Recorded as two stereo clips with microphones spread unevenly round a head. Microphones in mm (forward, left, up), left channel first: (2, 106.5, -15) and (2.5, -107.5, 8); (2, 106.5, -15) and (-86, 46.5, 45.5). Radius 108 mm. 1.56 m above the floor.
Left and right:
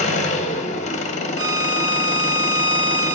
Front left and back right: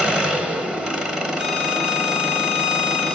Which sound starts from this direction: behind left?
An engine running, at 0.0 s.